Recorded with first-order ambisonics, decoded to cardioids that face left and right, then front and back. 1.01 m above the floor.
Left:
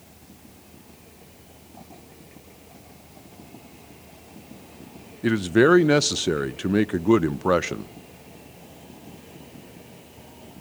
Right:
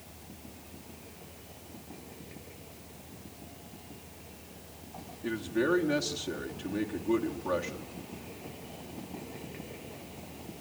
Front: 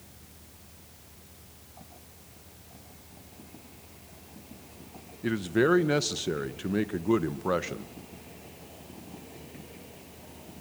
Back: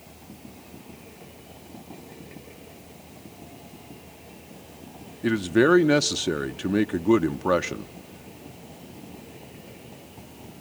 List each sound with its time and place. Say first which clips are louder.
5.2 s a man speaking: left 12 dB, back 5 dB; 110° left, 0.5 m